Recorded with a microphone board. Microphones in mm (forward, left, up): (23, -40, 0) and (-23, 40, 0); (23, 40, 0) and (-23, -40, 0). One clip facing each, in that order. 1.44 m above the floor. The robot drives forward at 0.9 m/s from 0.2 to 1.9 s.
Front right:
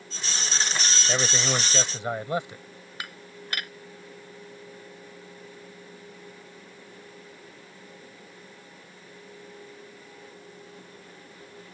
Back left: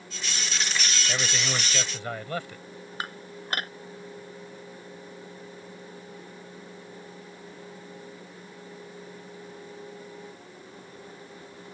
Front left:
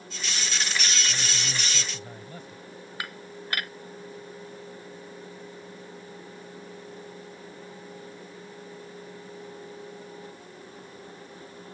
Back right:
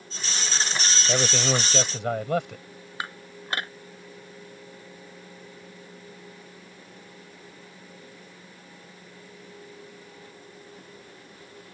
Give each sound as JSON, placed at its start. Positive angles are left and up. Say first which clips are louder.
{"t": 1.1, "sound": "a man speaking", "louder": "front right 5 dB, back right 9 dB", "azimuth_deg": -125}
{"t": 3.0, "sound": "dishes clattering", "louder": "back left 4 dB, back right 2 dB", "azimuth_deg": 175}